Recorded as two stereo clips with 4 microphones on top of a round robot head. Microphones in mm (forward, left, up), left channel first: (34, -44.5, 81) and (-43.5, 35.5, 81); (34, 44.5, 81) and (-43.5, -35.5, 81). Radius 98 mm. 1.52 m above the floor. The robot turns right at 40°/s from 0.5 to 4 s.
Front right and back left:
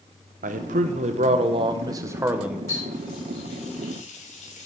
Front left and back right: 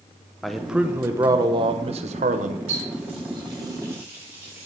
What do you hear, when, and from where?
0.4 s a man speaking: 135° left, 0.8 m; by 2.6 s 145° right, 0.8 m
2.7 s a running tap: 110° right, 3.5 m; by 4.7 s 60° right, 3.5 m